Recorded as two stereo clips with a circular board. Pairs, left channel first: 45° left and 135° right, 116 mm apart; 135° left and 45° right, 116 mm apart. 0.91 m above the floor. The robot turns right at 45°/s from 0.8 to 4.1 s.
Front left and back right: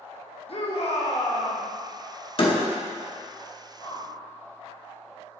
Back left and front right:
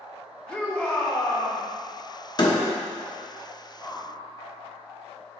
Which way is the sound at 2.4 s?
85° left.